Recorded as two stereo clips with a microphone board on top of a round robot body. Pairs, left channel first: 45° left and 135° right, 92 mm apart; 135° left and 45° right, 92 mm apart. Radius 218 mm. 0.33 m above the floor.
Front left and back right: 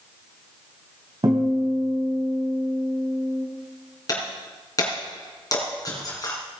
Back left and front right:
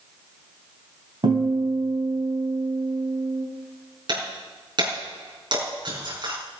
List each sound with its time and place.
1.2 s a guitar: 85° right, 3 m
4.1 s breaking glass: 5° right, 4.5 m